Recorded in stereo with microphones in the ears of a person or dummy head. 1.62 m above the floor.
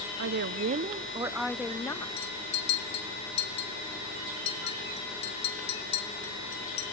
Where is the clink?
40° left (ahead or behind), 1.8 m.